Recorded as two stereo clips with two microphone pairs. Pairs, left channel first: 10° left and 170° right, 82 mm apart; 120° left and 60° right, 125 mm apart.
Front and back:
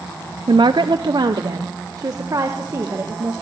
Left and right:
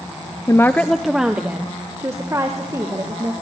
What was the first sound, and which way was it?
A woman speaking, straight behind.